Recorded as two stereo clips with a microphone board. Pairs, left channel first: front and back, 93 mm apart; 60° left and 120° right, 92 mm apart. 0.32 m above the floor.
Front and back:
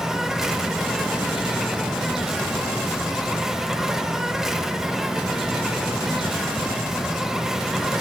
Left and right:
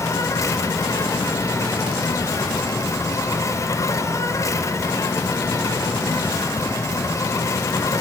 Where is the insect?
95° left, 1.1 m.